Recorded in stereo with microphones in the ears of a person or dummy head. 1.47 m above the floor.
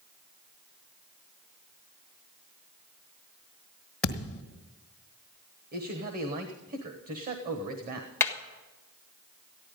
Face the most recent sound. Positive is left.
turn(degrees=15)  # may be behind; listen again after turning